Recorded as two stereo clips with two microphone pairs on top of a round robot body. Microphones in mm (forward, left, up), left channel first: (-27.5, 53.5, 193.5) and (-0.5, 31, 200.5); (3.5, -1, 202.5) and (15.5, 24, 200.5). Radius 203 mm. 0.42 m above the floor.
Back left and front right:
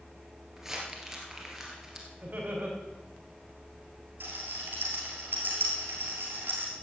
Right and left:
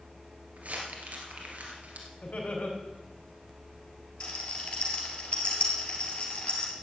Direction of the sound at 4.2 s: 70° right.